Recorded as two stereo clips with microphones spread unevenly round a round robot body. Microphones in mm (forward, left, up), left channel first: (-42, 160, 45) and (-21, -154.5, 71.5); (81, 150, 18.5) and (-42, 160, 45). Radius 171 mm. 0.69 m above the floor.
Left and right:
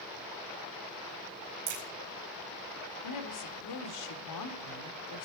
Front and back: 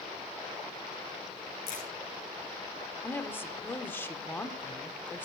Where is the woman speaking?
70° left, 1.9 m.